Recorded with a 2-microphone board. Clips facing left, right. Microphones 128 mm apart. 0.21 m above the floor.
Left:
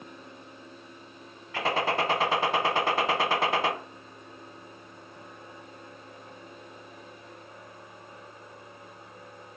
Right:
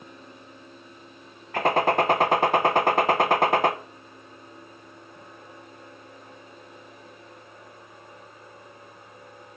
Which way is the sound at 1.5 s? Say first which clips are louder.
Right 6 dB; 50° right (ahead or behind).